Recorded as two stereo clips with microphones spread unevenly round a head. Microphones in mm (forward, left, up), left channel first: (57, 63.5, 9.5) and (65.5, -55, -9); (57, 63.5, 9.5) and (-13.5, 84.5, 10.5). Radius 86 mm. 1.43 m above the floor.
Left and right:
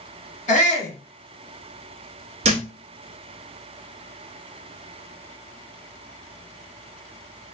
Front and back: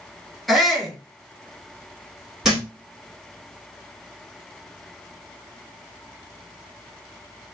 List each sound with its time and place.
0.5 s a shout: 75° left, 2.5 m
2.4 s a thud: 115° right, 0.9 m